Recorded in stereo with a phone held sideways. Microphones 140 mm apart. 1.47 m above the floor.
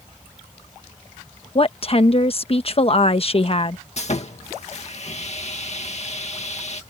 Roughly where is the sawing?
Left.